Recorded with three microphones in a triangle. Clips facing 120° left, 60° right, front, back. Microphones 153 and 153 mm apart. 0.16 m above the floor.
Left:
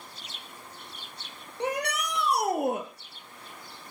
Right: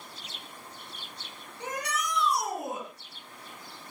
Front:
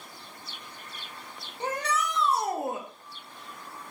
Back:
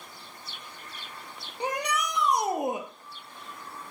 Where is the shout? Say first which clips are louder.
Left 4 dB, even; 105° left, 4 m; by 2.9 s 110° left, 2.5 m.